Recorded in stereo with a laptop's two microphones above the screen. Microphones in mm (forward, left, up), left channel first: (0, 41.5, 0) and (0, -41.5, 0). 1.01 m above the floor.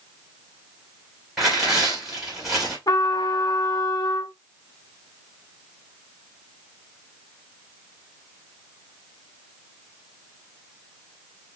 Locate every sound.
1.4 s tearing paper: 5° right (ahead or behind), 2.5 m
2.9 s a trumpet: 50° left (ahead or behind), 0.8 m